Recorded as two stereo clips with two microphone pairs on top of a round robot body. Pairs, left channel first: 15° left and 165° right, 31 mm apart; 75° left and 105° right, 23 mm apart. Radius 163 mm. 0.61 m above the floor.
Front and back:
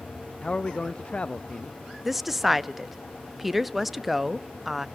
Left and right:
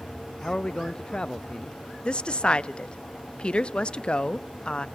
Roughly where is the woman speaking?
Left.